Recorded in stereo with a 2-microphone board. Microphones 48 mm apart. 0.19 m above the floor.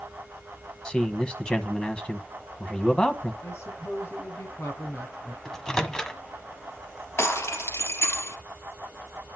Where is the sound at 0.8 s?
20° left (ahead or behind), 1.2 m.